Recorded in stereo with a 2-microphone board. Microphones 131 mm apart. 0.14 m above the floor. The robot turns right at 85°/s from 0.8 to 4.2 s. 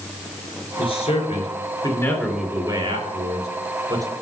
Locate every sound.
0.8 s a man speaking: 55° left, 3 m; by 4.0 s 30° right, 3 m